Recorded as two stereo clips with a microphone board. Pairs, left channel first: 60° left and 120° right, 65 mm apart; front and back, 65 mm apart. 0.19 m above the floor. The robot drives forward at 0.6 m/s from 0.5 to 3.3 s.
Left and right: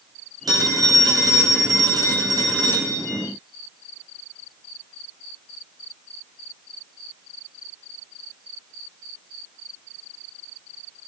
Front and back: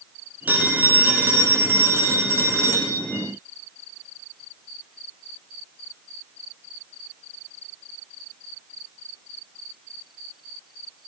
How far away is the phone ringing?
About 5 m.